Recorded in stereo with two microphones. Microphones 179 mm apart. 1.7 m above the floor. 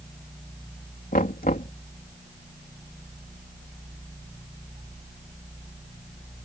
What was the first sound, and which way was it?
Knocking, 50° left (ahead or behind).